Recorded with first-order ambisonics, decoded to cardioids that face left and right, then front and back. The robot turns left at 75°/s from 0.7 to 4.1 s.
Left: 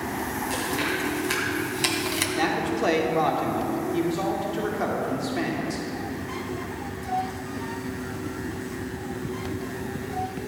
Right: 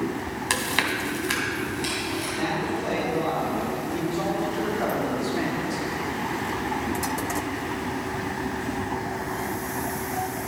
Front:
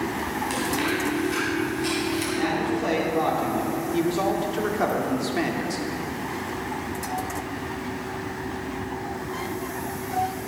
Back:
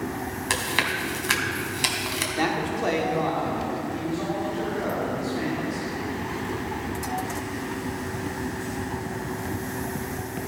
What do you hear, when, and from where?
0.5 s chewing: 125° right, 1.6 m; by 2.3 s 115° left, 1.6 m
2.4 s a man speaking: 145° left, 1.7 m; by 5.9 s 15° left, 1.7 m